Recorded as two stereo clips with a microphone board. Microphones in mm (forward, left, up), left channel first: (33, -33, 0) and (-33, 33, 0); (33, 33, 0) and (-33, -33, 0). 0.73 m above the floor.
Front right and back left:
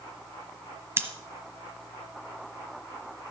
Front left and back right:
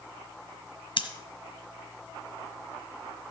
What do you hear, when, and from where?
1.0 s scissors: 70° left, 1.4 m